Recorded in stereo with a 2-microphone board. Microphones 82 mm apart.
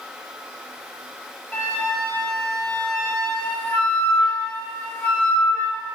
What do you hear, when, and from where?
1.5 s a flute: 15° left (ahead or behind), 1.7 m